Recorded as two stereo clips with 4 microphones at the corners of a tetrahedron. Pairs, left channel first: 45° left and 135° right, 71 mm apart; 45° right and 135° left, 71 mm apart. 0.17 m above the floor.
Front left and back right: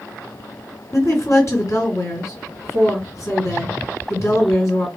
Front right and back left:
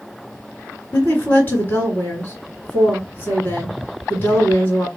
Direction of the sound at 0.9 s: 15° left.